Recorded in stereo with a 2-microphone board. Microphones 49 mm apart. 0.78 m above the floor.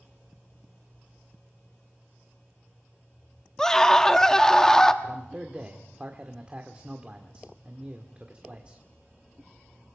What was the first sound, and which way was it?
A scream, 10° left (ahead or behind).